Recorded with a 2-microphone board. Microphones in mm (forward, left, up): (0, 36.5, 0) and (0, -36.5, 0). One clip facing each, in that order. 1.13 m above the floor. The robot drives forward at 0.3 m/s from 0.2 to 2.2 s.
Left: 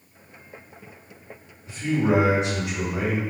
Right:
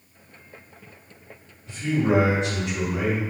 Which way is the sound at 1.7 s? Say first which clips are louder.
Even; 10° left (ahead or behind).